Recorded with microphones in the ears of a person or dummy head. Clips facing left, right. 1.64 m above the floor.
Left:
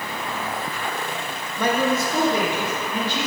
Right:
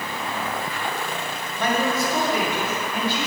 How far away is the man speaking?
About 1.2 m.